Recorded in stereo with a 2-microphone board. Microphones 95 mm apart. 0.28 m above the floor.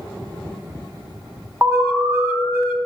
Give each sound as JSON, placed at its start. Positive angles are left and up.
{"t": 1.6, "sound": "an alarm", "side_deg": -30, "distance_m": 1.7}